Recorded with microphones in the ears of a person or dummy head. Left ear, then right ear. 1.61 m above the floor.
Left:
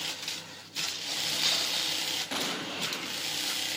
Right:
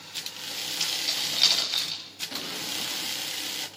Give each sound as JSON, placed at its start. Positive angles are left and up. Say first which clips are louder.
{"t": 0.8, "sound": "keys jangling", "louder": "right 3 dB", "side_deg": -40, "distance_m": 8.0}
{"t": 2.3, "sound": "an explosion", "louder": "even", "side_deg": 30, "distance_m": 0.7}